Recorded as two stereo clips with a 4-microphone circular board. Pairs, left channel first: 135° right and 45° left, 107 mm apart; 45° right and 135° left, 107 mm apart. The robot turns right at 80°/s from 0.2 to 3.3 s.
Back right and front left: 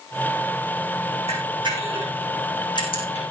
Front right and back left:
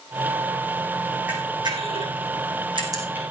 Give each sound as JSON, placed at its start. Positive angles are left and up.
{"t": 1.3, "sound": "a camera shutter", "azimuth_deg": 60, "distance_m": 5.0}